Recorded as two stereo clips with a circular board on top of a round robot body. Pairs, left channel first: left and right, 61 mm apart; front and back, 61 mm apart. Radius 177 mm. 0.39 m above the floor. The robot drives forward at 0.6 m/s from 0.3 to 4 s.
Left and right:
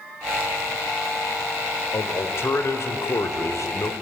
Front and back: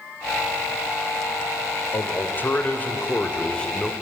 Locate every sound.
1.9 s a man speaking: 45° left, 2.5 m; by 3.9 s 75° left, 2 m